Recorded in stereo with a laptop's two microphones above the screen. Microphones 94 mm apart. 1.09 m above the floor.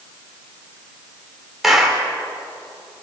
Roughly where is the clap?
Centre.